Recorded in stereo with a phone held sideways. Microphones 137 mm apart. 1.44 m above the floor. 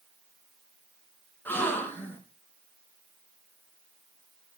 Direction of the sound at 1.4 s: 15° left (ahead or behind).